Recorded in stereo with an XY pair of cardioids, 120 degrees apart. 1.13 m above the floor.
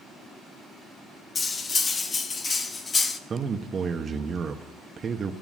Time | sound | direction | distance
1.4 | cutlery clinking | 30° left | 0.9 m
3.3 | a man speaking | 35° right | 1.0 m